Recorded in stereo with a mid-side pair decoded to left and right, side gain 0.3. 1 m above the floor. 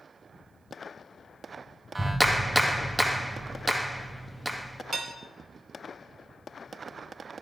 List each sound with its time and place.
1.9 s a clap: 20° right, 1.3 m
4.9 s dishes clattering: 60° right, 2.5 m